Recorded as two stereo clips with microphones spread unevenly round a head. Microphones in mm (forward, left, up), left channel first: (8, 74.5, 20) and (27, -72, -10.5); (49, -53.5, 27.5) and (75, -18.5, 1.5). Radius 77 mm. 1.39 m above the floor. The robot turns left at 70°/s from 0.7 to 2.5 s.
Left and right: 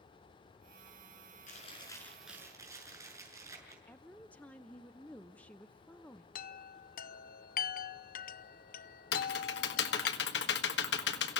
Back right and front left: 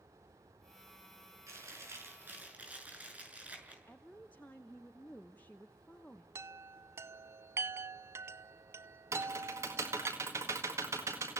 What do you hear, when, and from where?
1.5 s chewing: 60° left, 6.5 m; by 3.8 s 10° right, 6.5 m
3.9 s a woman speaking: 175° left, 0.7 m
6.3 s a chime: 65° left, 0.7 m
9.1 s typing on a keyboard: 100° left, 1.7 m